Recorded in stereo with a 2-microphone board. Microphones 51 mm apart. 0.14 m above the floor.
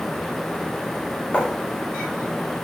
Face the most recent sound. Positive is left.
turn(degrees=25)  # may be behind; listen again after turning